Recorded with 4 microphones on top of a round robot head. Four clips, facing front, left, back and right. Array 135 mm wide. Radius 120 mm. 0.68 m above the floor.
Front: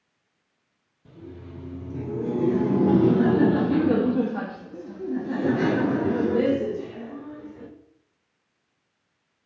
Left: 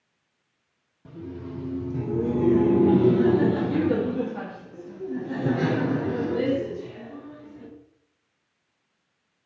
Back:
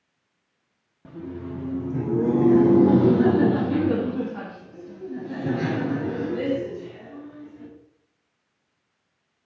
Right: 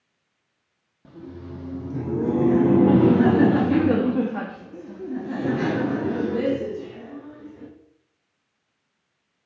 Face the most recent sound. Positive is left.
turn(degrees=-35)